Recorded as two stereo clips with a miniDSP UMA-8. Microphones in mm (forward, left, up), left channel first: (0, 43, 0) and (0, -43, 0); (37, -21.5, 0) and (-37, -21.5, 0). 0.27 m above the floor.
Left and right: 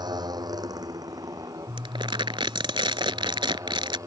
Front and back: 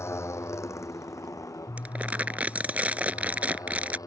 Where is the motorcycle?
55° right; by 4.1 s 40° right.